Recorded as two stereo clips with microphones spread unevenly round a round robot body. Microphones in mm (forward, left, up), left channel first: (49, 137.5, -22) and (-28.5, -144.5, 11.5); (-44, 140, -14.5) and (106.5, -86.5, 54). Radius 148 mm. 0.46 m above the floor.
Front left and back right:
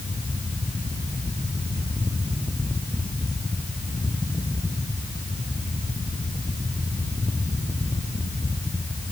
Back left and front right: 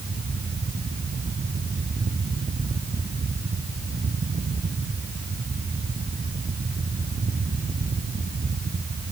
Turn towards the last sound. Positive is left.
No sound to turn to.